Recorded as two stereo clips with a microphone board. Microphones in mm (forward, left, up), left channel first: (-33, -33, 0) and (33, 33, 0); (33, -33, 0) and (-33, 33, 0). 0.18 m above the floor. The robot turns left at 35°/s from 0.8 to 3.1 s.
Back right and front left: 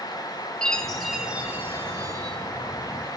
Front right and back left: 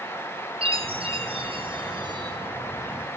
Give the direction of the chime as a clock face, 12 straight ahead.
7 o'clock.